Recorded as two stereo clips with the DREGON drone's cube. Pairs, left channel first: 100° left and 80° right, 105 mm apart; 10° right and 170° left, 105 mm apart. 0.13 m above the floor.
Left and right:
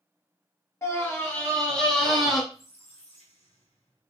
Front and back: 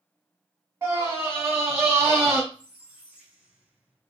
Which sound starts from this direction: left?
A squeak, at 2.5 s.